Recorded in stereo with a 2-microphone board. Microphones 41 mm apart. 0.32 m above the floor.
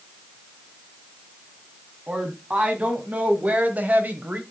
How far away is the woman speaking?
About 2.5 m.